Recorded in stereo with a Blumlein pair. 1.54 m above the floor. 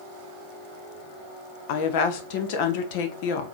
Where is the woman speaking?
50° left, 0.9 m.